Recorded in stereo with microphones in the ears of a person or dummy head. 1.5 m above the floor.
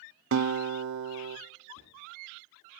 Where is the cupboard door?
60° left (ahead or behind), 1.5 m.